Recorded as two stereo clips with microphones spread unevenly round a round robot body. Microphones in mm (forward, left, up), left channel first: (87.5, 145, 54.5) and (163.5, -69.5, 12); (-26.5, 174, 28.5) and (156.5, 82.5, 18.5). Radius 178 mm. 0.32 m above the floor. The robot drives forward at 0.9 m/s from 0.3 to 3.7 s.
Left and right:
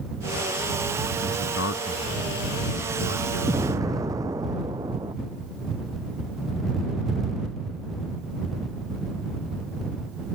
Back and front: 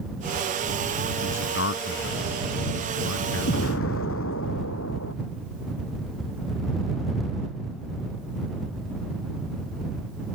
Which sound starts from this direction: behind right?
An explosion, at 3.5 s.